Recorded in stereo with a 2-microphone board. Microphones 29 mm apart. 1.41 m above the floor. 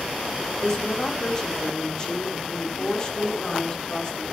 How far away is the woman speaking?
About 4.5 m.